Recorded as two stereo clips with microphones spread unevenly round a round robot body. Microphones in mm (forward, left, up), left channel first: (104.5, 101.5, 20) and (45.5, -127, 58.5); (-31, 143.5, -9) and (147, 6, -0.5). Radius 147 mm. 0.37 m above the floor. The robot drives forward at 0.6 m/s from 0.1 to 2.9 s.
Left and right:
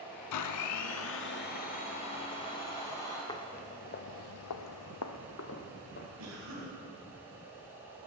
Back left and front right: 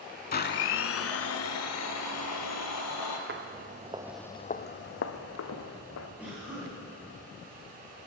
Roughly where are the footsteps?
Ahead.